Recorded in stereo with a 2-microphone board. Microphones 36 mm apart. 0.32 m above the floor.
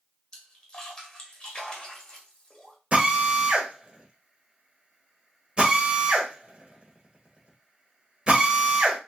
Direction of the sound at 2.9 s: 30° right (ahead or behind).